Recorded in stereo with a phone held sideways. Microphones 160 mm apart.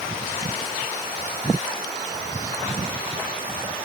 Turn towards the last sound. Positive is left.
No sound to turn to.